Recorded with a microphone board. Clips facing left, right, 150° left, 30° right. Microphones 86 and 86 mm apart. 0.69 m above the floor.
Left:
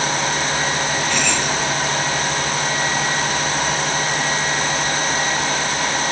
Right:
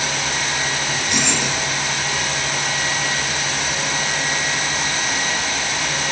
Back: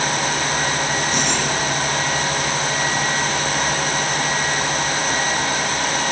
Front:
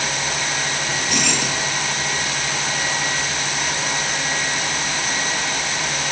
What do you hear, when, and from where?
0.9 s keys jangling: 15° right, 8.5 m